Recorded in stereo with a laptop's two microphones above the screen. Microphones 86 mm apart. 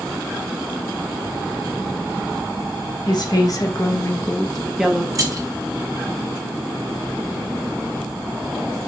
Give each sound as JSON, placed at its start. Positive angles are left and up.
{"t": 3.1, "sound": "a woman speaking", "side_deg": 55, "distance_m": 1.3}
{"t": 5.2, "sound": "keys jangling", "side_deg": -40, "distance_m": 0.8}